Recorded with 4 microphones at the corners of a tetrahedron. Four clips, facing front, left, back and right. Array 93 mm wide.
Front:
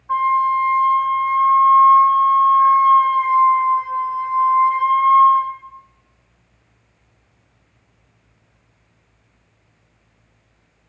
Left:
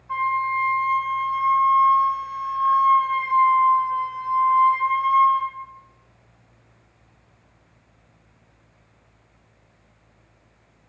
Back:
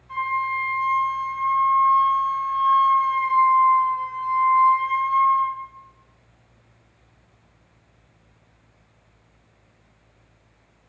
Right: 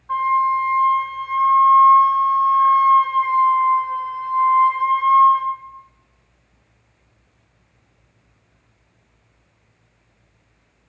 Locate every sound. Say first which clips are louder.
0.1 s a flute: right 5 dB, front 8 dB; 35° right, 5 m